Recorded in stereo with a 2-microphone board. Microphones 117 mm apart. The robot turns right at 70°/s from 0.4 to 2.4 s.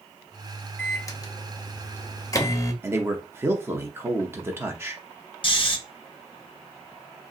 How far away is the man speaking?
About 0.7 m.